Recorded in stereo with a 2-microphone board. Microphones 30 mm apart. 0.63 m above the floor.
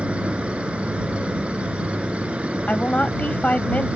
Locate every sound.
0.0 s an insect: 45° right (ahead or behind)
2.7 s a woman speaking: 55° left (ahead or behind)